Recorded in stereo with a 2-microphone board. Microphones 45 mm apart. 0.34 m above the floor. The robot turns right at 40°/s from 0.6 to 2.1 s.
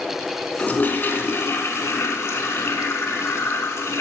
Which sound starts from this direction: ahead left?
A toilet flushing, at 0.6 s.